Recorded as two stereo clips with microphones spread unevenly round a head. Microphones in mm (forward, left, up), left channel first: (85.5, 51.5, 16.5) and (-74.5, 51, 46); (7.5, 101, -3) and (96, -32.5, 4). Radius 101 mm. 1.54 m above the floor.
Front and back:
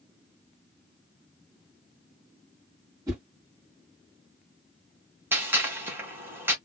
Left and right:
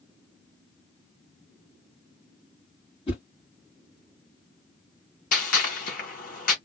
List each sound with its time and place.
3.1 s a whoosh: 150° left, 1.6 m
5.3 s a gunshot: 115° left, 1.3 m